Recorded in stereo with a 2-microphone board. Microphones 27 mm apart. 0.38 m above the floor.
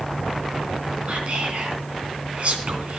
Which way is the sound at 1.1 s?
60° right (ahead or behind).